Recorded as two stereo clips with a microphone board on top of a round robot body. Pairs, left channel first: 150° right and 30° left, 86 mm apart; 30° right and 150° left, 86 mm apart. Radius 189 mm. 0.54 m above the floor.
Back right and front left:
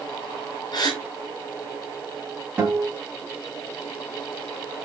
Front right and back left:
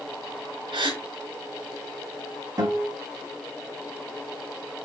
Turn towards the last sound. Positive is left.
turn(degrees=100)